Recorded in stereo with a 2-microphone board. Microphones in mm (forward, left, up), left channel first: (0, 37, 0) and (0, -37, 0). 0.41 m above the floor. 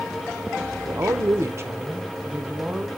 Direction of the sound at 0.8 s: 45° right (ahead or behind).